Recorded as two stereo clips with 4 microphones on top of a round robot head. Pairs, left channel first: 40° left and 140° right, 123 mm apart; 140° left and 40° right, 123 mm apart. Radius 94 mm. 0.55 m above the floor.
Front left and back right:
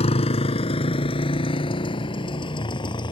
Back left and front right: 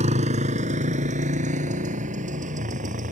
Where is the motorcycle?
5° right; by 3.1 s 15° right.